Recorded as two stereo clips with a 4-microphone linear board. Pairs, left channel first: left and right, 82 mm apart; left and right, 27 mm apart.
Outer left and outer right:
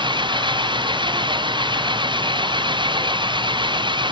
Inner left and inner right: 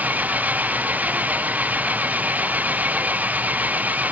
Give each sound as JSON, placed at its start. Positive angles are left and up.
{"t": 0.0, "sound": "an engine running", "side_deg": -75}